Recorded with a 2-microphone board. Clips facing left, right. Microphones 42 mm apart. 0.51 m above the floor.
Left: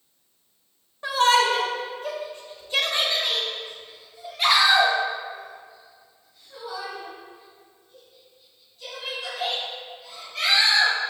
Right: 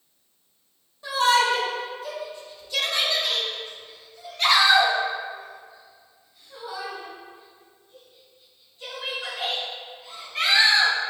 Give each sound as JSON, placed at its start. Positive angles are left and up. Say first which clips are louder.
{"t": 1.0, "sound": "a shout", "louder": "left 1 dB", "side_deg": 55, "distance_m": 2.0}